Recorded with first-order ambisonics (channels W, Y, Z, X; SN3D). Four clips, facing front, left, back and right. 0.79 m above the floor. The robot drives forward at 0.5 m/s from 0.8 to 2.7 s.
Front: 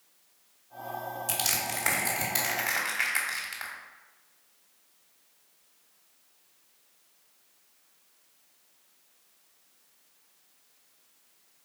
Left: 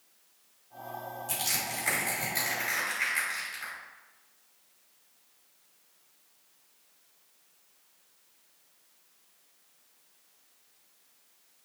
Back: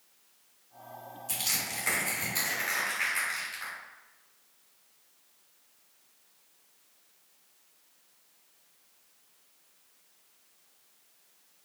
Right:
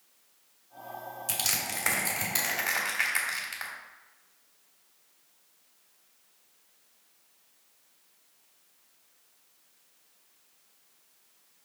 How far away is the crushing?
About 3 m.